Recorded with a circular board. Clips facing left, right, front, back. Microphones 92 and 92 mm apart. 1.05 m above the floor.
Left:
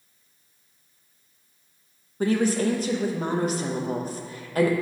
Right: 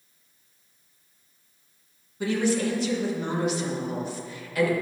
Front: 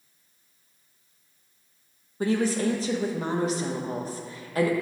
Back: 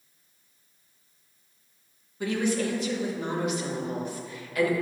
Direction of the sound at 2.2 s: 50° left.